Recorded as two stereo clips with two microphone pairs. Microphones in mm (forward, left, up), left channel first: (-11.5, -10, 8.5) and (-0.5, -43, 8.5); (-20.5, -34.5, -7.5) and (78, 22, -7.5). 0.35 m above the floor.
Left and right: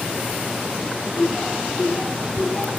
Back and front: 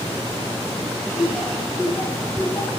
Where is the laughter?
95° left, 1.0 m; by 2.7 s 175° left, 1.2 m.